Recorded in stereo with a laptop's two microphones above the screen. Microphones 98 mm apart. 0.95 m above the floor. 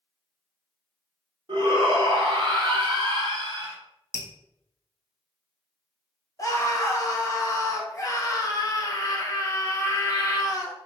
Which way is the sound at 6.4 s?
35° left (ahead or behind).